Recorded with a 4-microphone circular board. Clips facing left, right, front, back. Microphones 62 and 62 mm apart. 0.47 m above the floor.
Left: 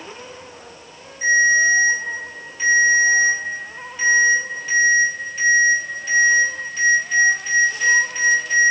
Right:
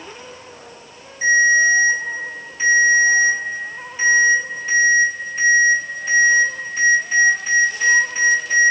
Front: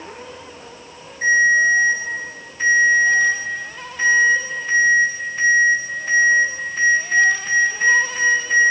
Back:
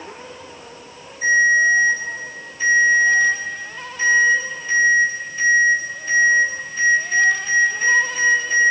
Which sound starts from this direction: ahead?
A ringtone, at 1.2 s.